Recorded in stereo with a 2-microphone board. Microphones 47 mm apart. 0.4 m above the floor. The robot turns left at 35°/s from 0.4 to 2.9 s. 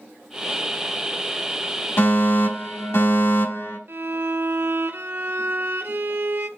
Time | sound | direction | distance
2.0 | a fire alarm | 120° left | 4 m
3.9 | a violin | 50° right (ahead or behind) | 0.5 m